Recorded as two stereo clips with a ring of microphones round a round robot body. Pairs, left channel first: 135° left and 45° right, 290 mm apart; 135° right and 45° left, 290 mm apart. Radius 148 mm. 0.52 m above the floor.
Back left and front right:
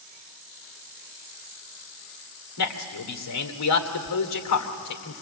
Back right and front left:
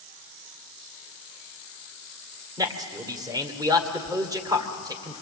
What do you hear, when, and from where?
2.6 s a man speaking: 120° left, 2 m